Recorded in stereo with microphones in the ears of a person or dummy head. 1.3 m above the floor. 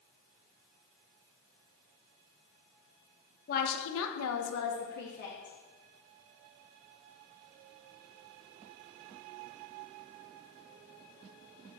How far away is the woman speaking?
About 1.2 m.